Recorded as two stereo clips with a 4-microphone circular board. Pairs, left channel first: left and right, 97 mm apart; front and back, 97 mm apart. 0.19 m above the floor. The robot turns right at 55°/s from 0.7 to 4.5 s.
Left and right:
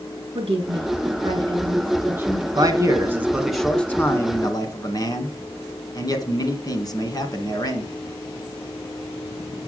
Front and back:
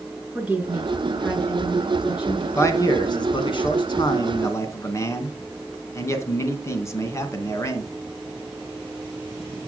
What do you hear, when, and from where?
0.3 s a woman speaking: 105° right, 3.5 m; by 2.5 s 10° right, 3.5 m
2.5 s a man speaking: 55° right, 2.0 m; by 7.8 s 50° left, 2.0 m